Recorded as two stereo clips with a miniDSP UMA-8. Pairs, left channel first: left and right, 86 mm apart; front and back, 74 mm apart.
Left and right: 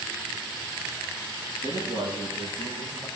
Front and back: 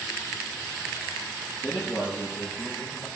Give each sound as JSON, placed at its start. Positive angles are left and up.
{"t": 1.6, "sound": "a man speaking", "azimuth_deg": -100, "distance_m": 6.5}